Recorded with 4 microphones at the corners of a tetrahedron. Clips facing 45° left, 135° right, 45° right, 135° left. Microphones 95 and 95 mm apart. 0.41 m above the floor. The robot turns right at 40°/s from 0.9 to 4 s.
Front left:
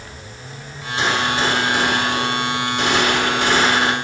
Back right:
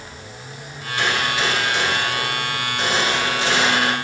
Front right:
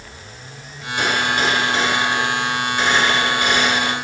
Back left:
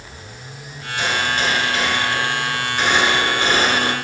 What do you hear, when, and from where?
1.0 s a gunshot: 15° right, 6.5 m; by 4.0 s 100° left, 6.5 m